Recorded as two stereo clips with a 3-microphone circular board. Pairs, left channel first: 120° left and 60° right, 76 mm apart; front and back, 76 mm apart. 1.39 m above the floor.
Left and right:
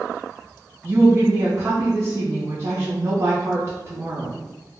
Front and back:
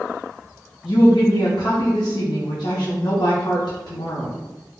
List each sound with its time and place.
0.8 s a woman speaking: 5° right, 0.6 m